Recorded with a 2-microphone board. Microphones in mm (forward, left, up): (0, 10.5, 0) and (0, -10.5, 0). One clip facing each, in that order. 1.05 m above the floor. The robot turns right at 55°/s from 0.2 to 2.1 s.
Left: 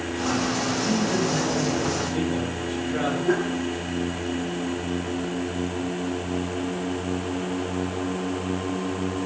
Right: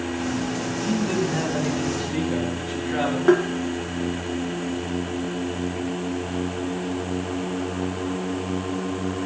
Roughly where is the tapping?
Right.